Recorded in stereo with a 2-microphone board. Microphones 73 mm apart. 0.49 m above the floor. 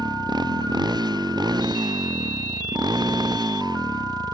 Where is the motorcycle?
75° right (ahead or behind); by 4.3 s 70° right (ahead or behind).